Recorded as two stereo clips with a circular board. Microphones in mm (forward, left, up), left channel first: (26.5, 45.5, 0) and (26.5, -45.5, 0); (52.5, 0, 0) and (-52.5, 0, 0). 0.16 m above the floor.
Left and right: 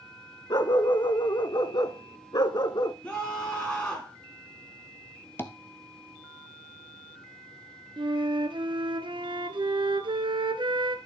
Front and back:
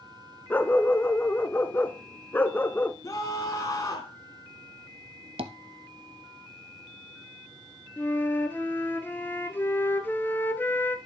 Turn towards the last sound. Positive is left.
turn(degrees=-70)